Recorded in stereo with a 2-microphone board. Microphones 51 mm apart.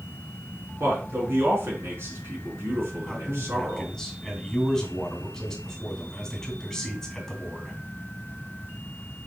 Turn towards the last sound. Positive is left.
turn(degrees=5)  # may be behind; listen again after turning